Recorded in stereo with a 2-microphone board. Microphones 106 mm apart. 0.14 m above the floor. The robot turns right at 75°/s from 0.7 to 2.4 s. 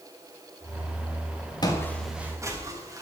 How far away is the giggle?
No giggle in this recording.